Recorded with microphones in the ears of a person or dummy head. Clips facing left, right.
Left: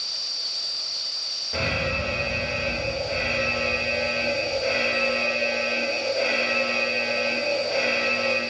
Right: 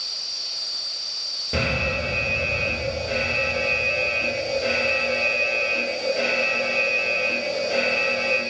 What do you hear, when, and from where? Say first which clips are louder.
1.5 s an alarm: right 2 dB; 40° right (ahead or behind), 3.5 m